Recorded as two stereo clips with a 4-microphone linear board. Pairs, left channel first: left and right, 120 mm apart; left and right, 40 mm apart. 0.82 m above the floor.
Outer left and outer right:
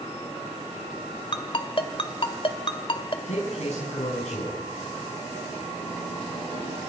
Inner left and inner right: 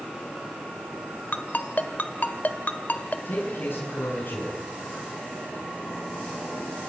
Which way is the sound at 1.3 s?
50° left (ahead or behind).